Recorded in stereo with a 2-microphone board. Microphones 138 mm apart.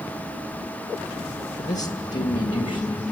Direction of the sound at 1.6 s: 55° left (ahead or behind).